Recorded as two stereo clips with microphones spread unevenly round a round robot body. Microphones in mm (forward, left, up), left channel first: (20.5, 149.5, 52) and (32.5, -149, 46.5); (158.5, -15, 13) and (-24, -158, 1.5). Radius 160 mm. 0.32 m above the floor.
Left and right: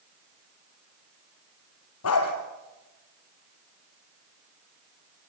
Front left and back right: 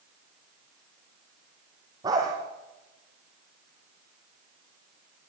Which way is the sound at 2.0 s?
140° left.